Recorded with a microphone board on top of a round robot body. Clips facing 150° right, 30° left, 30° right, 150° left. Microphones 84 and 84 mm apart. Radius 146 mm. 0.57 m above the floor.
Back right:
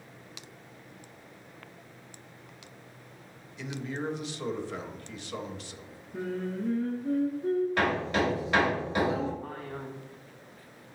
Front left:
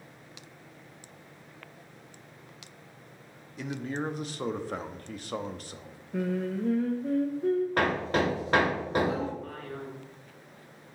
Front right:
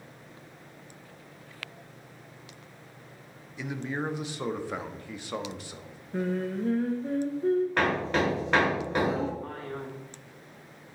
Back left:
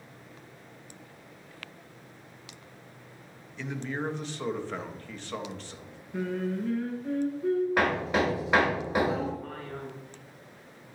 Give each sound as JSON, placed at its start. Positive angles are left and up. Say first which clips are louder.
{"t": 3.6, "sound": "a man speaking", "louder": "front left 2 dB, front right 1 dB", "azimuth_deg": 45, "distance_m": 1.0}
{"t": 6.1, "sound": "singing", "louder": "front left 3 dB, front right 1 dB", "azimuth_deg": 25, "distance_m": 0.6}
{"t": 7.8, "sound": "hammering", "louder": "front left 1 dB, even", "azimuth_deg": 70, "distance_m": 1.9}
{"t": 9.4, "sound": "a man speaking", "louder": "even, front right 2 dB", "azimuth_deg": -85, "distance_m": 2.0}